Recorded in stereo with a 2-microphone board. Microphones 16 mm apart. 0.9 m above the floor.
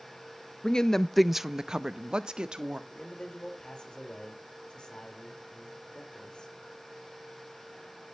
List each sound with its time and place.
0.6 s a woman speaking: 55° left (ahead or behind), 0.7 m; by 2.8 s 60° right (ahead or behind), 1.6 m
2.9 s a man speaking: 70° left (ahead or behind), 4.5 m